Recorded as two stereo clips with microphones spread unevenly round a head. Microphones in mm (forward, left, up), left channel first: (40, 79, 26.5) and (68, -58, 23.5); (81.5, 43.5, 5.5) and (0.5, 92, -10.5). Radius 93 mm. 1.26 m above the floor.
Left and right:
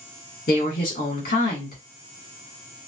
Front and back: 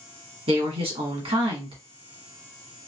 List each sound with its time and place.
0.5 s a woman speaking: 140° left, 1.8 m